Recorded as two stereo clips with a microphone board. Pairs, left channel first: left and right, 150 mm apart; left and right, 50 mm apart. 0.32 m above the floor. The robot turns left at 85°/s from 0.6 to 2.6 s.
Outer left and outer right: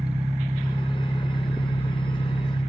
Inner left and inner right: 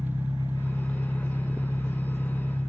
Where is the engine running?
155° right, 3 m; by 2.7 s 35° left, 3 m.